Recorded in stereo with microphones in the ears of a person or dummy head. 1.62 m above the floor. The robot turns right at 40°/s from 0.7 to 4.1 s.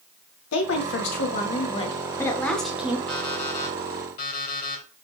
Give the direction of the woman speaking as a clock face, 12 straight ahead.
9 o'clock.